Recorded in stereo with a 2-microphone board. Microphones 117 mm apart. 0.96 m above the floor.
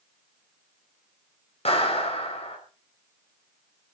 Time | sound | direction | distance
1.6 | a clap | 55° left (ahead or behind) | 5 m